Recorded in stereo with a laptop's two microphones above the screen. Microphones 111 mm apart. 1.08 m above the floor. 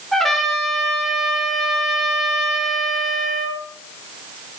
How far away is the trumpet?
About 2 m.